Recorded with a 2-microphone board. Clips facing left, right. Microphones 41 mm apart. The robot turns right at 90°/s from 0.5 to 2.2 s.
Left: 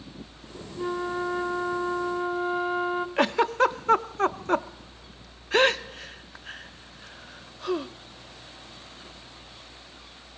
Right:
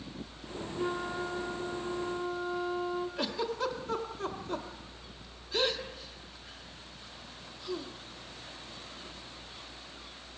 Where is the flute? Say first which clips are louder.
Left 5 dB; 10° right, 0.8 m; by 3.1 s 120° left, 0.8 m.